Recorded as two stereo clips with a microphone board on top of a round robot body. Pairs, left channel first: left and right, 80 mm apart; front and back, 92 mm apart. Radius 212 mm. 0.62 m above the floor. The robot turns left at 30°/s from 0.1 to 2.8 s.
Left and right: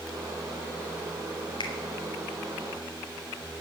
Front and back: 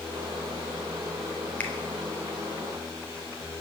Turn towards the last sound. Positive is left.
turn(degrees=40)